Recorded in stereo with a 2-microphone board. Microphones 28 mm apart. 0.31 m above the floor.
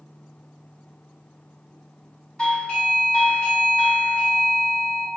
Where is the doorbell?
25° left (ahead or behind), 1.5 m.